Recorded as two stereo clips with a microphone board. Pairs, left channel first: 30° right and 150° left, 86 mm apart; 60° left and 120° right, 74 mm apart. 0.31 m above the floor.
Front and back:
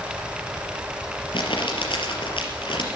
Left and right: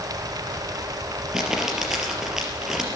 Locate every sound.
1.3 s crumpling: 35° right, 4 m